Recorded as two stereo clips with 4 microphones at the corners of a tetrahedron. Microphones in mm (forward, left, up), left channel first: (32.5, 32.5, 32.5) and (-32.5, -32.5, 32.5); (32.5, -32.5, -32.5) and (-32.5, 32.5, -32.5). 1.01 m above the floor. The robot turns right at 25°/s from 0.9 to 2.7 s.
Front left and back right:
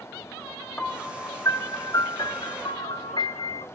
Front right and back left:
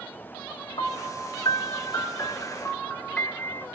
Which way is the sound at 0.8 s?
25° right.